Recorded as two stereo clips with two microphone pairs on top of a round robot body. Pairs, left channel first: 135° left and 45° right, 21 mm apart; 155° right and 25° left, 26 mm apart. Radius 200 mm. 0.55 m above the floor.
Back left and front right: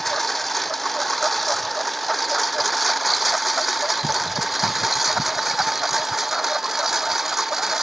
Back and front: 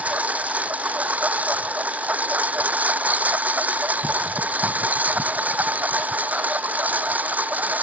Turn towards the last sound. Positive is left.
turn(degrees=25)